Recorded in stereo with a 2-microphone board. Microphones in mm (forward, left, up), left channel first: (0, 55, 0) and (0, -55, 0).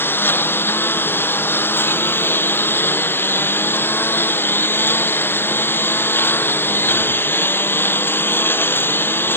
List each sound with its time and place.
0.0 s a lawn mower: 20° left (ahead or behind)